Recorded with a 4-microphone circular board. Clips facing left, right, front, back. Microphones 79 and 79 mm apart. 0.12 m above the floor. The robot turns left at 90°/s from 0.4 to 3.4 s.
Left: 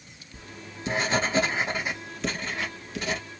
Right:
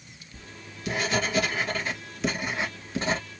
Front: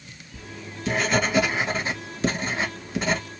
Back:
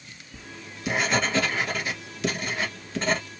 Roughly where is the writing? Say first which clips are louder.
Left 3 dB, front 4 dB; behind.